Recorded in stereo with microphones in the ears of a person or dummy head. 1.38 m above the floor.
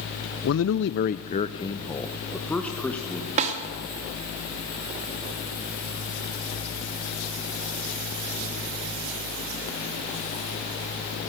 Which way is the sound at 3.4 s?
30° right (ahead or behind).